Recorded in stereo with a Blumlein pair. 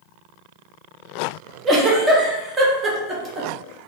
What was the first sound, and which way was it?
A giggle, 15° right.